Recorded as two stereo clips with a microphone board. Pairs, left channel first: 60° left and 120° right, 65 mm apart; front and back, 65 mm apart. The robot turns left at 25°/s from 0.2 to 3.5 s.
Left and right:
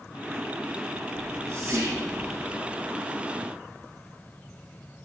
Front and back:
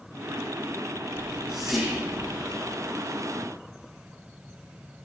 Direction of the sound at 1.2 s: 75° right.